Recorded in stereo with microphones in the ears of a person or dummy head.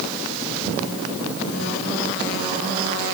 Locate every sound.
Only background noise.